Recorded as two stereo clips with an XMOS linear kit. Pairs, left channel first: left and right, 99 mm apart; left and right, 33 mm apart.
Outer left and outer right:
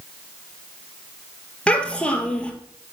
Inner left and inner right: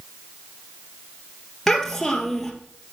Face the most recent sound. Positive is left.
turn(degrees=10)  # may be behind; listen again after turning